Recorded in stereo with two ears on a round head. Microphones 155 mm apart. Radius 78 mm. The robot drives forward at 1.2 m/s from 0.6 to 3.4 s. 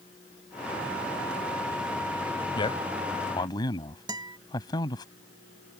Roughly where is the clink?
No clink in this recording.